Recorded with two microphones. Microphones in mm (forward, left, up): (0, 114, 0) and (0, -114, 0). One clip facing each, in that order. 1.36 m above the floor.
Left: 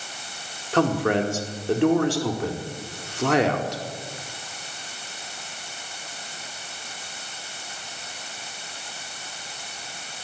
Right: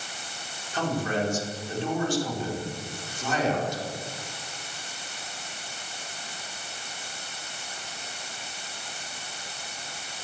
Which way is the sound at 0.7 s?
70° left (ahead or behind).